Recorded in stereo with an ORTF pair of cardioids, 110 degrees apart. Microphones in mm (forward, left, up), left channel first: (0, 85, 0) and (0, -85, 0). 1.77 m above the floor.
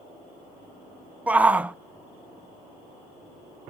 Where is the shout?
10° right, 0.6 m.